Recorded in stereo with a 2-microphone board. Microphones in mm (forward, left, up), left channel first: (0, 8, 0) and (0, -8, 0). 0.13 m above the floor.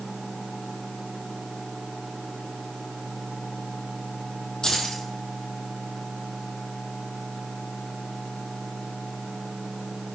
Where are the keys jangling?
55° left (ahead or behind), 3 m.